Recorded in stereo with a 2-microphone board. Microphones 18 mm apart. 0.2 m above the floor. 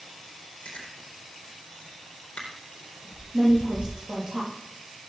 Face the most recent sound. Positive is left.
turn(degrees=-45)  # may be behind; listen again after turning